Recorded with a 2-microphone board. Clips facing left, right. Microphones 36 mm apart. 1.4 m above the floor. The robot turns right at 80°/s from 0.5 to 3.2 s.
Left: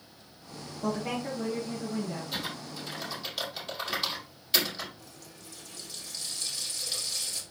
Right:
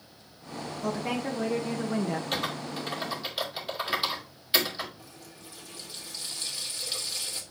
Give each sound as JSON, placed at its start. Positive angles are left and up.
{"t": 0.8, "sound": "a woman speaking", "azimuth_deg": 175, "distance_m": 1.3}
{"t": 2.3, "sound": "typing on a keyboard", "side_deg": -75, "distance_m": 2.5}
{"t": 5.0, "sound": "a running tap", "side_deg": -25, "distance_m": 2.0}